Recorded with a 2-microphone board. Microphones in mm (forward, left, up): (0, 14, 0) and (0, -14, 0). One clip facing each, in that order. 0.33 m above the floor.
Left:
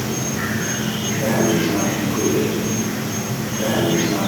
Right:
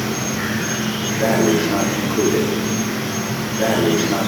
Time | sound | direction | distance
0.0 | an insect | 40° right (ahead or behind) | 3.5 m
1.2 | breathing | 35° right (ahead or behind) | 8 m